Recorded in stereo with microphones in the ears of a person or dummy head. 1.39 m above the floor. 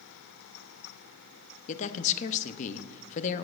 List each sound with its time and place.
1.7 s a man speaking: 45° left (ahead or behind), 0.6 m